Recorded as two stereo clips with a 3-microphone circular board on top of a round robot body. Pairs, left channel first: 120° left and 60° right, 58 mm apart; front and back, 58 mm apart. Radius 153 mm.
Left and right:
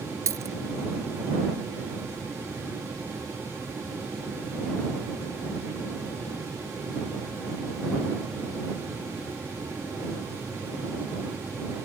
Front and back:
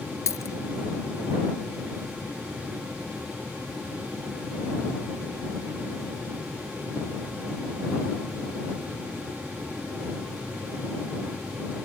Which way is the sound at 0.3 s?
30° right.